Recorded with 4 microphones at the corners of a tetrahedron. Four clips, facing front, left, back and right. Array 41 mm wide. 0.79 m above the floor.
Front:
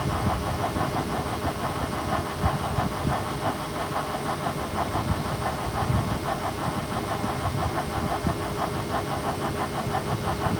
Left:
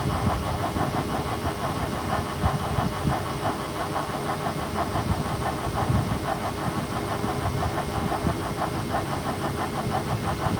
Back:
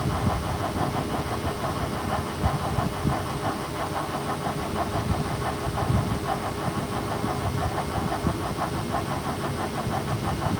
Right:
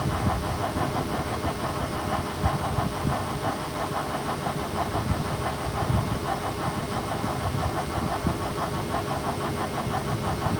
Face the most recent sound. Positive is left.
No sound to turn to.